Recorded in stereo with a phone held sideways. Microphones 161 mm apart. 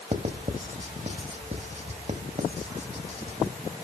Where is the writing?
45° right (ahead or behind), 1.2 m.